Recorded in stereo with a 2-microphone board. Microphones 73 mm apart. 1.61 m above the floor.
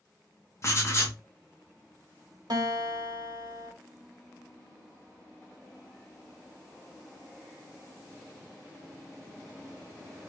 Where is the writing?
45° left (ahead or behind), 1.0 m.